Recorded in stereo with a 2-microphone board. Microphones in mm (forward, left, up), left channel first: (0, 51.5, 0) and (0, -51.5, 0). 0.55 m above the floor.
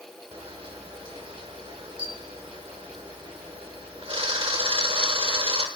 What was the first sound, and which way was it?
A camera shutter, 65° right (ahead or behind).